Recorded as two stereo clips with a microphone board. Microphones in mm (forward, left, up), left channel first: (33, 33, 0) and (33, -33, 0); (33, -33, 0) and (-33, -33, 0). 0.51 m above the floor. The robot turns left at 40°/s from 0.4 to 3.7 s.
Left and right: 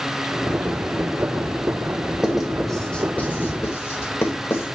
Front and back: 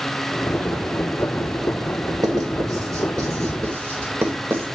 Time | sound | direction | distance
2.2 | writing | 165° right | 1.9 m